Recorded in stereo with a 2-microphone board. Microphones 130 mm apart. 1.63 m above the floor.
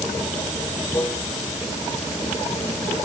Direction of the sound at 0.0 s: 20° left (ahead or behind).